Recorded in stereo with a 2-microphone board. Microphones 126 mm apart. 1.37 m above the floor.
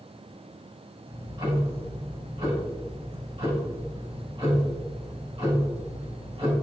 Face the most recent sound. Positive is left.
turn(degrees=-45)  # may be behind; listen again after turning